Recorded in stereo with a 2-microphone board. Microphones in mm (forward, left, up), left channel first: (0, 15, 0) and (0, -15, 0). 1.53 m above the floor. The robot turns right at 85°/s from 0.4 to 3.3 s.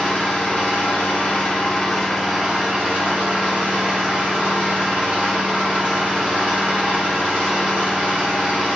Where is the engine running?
30° left, 1.9 m; by 8.8 s 85° right, 1.9 m.